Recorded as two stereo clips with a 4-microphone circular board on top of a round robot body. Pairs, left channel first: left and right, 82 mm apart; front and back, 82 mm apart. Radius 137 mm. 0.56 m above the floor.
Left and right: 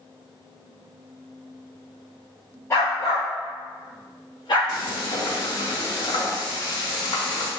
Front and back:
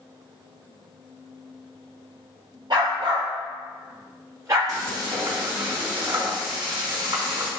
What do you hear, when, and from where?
2.7 s a dog barking: 145° left, 3.5 m; by 4.6 s 130° left, 3 m
4.7 s frying: 135° left, 3.5 m